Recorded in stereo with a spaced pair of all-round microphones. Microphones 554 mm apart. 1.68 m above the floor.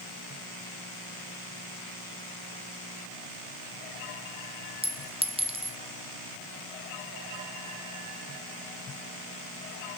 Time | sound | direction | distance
4.8 | a clink | 10° right (ahead or behind) | 0.7 m